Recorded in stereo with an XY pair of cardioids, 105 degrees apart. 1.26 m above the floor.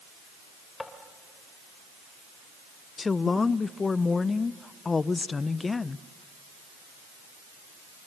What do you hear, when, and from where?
0.8 s tapping: 20° left, 3.5 m
3.0 s a woman speaking: 30° left, 0.7 m